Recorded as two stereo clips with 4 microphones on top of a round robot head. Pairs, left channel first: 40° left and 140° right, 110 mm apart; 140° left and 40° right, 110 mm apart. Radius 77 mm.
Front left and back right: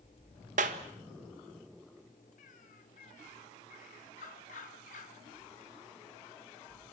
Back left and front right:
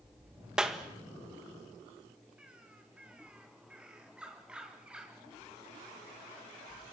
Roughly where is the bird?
Ahead left.